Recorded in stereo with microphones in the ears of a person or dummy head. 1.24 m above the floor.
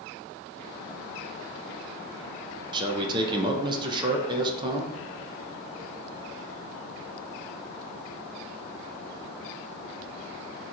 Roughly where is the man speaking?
Right.